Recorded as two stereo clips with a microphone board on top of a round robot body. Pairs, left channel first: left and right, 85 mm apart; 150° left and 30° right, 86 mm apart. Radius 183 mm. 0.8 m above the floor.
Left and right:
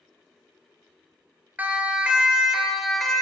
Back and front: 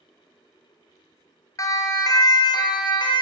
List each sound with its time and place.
1.6 s a siren: 160° right, 3 m; by 3.2 s 175° left, 3.5 m